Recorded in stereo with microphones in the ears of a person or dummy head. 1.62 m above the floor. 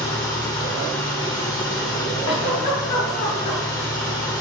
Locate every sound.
0.0 s an engine running: 25° left (ahead or behind), 1.3 m
2.2 s a giggle: 55° left (ahead or behind), 3 m